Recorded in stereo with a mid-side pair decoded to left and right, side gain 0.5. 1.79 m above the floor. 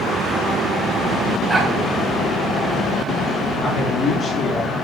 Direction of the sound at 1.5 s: 15° right.